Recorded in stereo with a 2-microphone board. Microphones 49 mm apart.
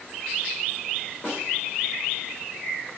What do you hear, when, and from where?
1.2 s a snare drum: 35° left (ahead or behind), 2.5 m